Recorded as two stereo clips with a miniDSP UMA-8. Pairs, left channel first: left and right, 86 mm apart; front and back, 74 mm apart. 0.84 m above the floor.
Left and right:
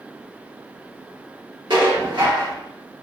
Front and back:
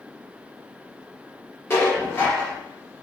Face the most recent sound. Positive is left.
turn(degrees=-60)